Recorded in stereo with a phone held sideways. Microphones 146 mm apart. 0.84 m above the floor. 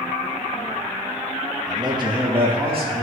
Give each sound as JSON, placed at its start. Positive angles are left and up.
{"t": 1.7, "sound": "a man speaking", "side_deg": -25, "distance_m": 0.9}